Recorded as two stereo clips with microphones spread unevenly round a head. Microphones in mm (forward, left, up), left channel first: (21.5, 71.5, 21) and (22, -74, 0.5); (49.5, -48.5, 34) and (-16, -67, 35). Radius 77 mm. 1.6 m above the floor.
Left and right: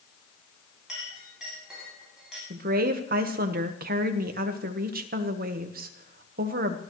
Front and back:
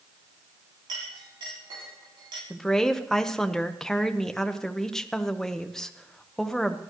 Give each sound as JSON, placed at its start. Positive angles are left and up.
{"t": 0.9, "sound": "a clink", "azimuth_deg": -175, "distance_m": 6.5}
{"t": 2.5, "sound": "a woman speaking", "azimuth_deg": -65, "distance_m": 1.3}